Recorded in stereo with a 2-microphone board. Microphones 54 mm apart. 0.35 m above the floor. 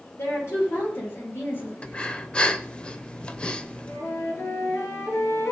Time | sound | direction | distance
0.2 | a woman speaking | 55° left (ahead or behind) | 7.5 m
1.8 | breathing | 20° left (ahead or behind) | 0.8 m
3.9 | a flute | 65° left (ahead or behind) | 3.5 m